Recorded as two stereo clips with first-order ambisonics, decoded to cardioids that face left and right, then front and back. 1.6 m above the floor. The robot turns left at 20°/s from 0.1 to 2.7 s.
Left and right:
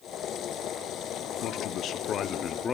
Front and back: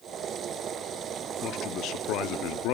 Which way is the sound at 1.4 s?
50° left.